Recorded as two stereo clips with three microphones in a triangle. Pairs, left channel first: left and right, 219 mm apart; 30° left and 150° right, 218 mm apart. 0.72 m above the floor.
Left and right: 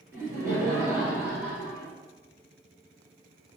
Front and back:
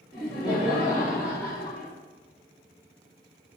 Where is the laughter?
150° right, 1.1 m.